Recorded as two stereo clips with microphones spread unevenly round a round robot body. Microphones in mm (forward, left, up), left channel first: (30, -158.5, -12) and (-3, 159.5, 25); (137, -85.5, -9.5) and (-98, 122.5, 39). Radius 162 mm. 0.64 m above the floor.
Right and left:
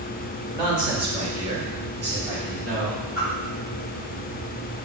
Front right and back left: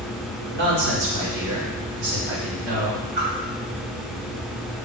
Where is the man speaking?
Straight behind, 2.5 m; by 3.0 s 150° left, 3 m.